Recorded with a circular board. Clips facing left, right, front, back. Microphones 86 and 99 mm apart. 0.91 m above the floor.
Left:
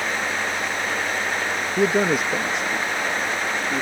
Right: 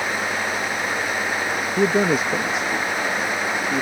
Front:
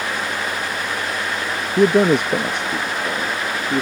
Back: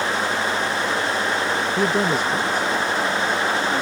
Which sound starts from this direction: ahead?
A man speaking, at 1.8 s.